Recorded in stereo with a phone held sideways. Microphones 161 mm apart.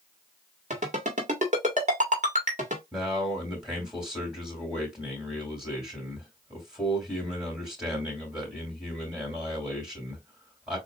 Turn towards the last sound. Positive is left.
turn(degrees=-5)  # may be behind; listen again after turning